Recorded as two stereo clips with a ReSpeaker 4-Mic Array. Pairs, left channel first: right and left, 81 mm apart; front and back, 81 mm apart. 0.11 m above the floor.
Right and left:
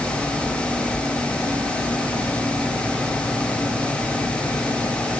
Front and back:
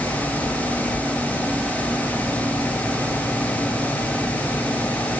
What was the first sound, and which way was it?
Only background noise.